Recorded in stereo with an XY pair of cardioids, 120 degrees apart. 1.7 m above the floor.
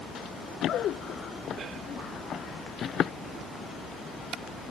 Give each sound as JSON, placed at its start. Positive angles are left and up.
{"t": 0.1, "sound": "running footsteps", "azimuth_deg": 60}